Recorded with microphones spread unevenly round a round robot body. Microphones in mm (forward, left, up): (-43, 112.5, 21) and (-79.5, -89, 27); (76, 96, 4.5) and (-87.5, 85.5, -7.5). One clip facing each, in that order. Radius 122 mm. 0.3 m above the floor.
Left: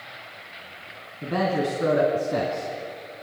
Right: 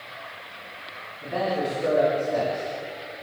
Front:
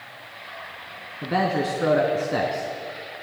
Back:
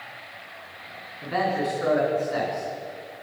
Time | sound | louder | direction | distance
1.2 | a man speaking | left 2 dB, front 2 dB | 45° left | 3.5 m